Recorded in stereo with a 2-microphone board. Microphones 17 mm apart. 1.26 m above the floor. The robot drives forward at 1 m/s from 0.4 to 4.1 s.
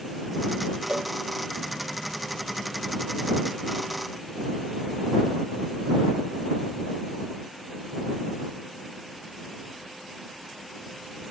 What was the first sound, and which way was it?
A cowbell, 70° right (ahead or behind).